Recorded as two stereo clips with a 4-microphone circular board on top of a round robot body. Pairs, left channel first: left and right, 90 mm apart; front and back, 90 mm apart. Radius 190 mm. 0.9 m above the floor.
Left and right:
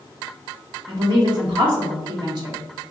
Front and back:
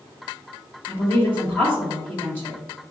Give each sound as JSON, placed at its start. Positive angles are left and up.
{"t": 0.9, "sound": "a woman speaking", "azimuth_deg": -65, "distance_m": 1.9}